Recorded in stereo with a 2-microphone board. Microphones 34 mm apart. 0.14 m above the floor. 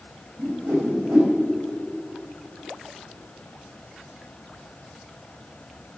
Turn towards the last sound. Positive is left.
turn(degrees=-75)  # may be behind; listen again after turning